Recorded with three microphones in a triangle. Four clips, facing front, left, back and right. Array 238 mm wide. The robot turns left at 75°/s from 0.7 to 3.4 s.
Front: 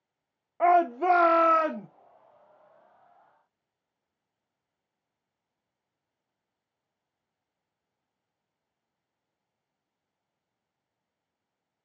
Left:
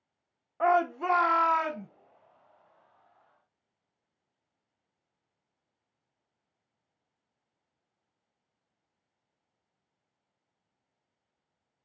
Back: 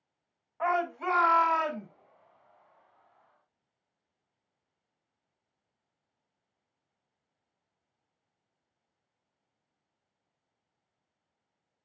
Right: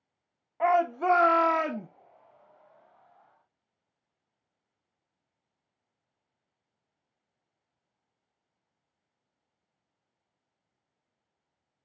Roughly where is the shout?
Ahead.